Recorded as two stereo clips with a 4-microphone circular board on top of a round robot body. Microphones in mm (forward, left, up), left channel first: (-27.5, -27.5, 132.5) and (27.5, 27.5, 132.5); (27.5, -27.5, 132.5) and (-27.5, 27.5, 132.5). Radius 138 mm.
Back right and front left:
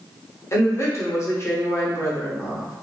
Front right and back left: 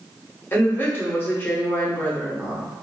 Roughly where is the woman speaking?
Right.